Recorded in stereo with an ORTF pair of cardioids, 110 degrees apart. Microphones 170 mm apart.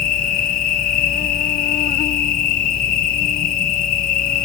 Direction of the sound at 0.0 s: 55° left.